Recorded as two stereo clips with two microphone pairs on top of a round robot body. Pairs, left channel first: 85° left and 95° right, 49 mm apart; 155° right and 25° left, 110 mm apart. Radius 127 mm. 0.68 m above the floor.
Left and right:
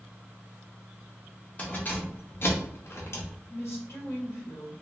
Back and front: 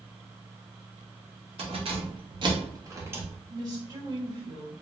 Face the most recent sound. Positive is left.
turn(degrees=70)